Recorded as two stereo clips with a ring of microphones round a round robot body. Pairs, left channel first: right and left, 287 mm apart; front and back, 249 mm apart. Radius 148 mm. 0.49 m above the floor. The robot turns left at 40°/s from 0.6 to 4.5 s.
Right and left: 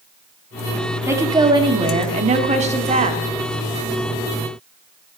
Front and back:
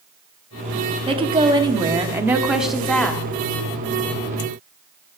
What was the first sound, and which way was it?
A woman speaking, 160° left.